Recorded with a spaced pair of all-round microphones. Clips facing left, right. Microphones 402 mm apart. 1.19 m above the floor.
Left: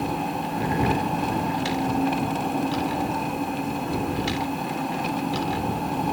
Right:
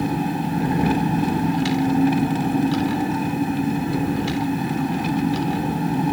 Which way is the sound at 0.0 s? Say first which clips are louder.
Right 5 dB; 35° right (ahead or behind).